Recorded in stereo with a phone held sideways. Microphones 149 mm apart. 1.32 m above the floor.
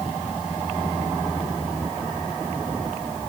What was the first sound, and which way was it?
Only background noise.